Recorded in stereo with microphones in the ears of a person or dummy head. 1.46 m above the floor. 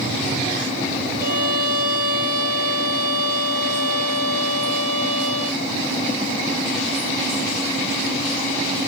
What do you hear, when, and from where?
1.2 s a violin: 50° right (ahead or behind), 2 m